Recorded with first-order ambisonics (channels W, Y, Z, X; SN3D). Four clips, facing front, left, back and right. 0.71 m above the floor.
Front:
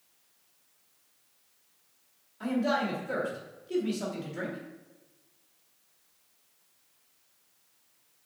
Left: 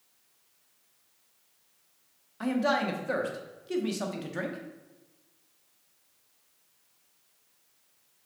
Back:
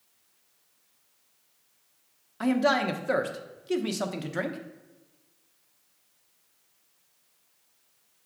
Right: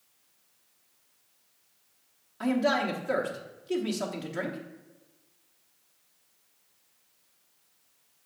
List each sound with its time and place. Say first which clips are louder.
2.4 s a man speaking: right 1 dB, back 5 dB; 175° left, 0.9 m